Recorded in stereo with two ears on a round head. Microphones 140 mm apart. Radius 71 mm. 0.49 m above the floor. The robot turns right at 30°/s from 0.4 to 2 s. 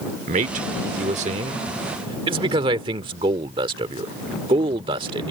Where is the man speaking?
50° right (ahead or behind); by 5.3 s 30° right (ahead or behind).